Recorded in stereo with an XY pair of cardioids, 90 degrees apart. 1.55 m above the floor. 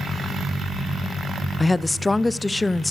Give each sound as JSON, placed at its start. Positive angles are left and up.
{"t": 1.6, "sound": "a woman speaking", "azimuth_deg": 20, "distance_m": 0.5}